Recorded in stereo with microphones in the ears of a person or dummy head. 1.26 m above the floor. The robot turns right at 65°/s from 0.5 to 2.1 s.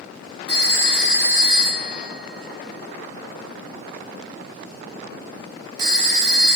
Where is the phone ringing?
30° left (ahead or behind), 0.8 m; by 6.6 s 60° right (ahead or behind), 0.8 m.